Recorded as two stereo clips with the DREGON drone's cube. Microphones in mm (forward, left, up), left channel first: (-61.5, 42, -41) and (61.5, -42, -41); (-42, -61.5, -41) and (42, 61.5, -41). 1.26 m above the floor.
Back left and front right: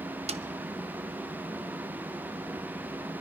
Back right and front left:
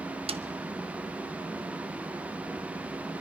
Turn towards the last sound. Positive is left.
turn(degrees=10)